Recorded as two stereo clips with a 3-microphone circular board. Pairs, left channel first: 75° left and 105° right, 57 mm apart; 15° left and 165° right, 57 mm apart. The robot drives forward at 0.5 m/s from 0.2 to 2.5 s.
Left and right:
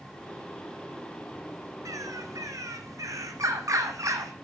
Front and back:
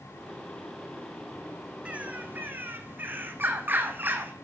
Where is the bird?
100° right, 1.0 m; by 4.3 s 115° right, 1.1 m.